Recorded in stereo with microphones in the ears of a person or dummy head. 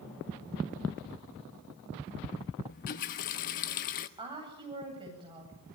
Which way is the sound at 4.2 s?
20° right (ahead or behind).